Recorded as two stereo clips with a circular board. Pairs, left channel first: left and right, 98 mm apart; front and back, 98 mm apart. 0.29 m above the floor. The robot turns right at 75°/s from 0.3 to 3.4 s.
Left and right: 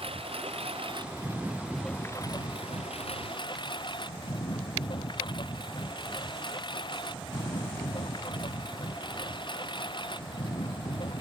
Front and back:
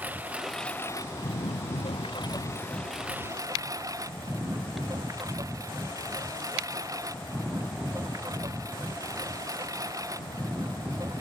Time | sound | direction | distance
0.0 | a lawn mower | 105° right | ?